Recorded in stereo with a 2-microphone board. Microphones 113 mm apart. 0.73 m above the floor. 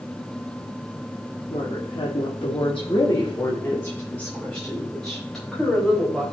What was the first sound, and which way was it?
A woman speaking, 60° left (ahead or behind).